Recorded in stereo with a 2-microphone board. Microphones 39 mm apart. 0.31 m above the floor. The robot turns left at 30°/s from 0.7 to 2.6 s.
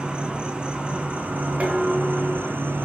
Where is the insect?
25° right, 1.0 m; by 2.9 s 85° right, 1.0 m.